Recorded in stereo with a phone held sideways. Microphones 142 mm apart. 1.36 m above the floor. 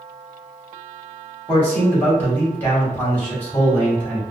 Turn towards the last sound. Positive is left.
turn(degrees=15)  # may be behind; listen again after turning